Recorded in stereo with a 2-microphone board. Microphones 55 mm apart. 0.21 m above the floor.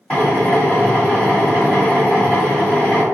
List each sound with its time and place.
0.1 s a drill: 20° left (ahead or behind), 1.4 m